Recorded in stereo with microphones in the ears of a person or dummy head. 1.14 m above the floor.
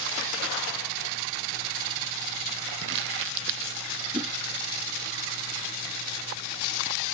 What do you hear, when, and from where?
2.8 s crumpling: 65° right (ahead or behind)
4.1 s a whoosh: 20° right (ahead or behind)